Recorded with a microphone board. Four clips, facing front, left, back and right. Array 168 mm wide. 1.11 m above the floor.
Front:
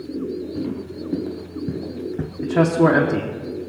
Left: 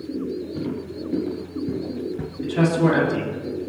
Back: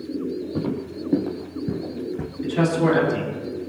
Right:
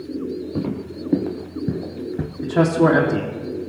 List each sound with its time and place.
0.6 s footsteps: 125° right, 2.0 m; by 2.3 s 50° right, 1.2 m
2.4 s a man speaking: 40° right, 2.5 m